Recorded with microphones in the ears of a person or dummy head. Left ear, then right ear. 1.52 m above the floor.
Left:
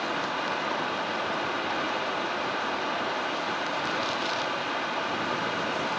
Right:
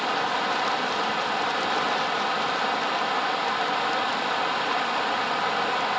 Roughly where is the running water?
Right.